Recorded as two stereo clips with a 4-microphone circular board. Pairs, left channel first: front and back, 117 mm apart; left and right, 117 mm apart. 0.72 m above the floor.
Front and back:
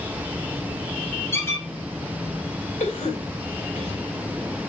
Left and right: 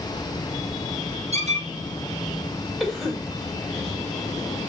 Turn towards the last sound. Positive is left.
turn(degrees=0)